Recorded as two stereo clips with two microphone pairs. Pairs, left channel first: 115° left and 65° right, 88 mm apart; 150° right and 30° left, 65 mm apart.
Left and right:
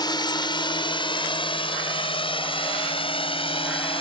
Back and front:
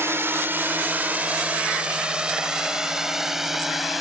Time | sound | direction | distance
0.0 | a drone | 80° left | ?